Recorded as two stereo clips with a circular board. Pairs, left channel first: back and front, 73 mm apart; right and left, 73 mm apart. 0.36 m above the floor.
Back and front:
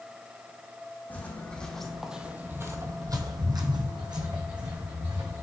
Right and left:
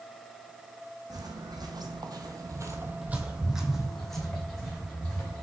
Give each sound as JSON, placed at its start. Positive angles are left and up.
{"t": 1.1, "sound": "footsteps", "azimuth_deg": 115, "distance_m": 1.1}